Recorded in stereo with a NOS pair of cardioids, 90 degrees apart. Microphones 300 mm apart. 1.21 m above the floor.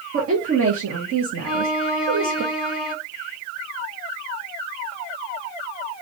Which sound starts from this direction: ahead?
A violin, at 1.4 s.